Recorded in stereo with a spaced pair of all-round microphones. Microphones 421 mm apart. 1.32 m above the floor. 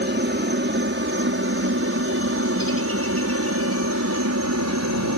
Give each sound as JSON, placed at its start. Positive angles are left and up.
{"t": 0.0, "sound": "a helicopter", "side_deg": -25}